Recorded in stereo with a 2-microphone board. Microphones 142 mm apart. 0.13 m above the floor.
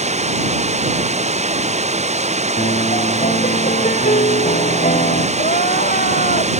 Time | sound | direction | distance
0.0 | running water | 50° right (ahead or behind) | ?
2.6 | a piano | 65° left (ahead or behind) | ?
5.4 | crying | 75° left (ahead or behind) | ?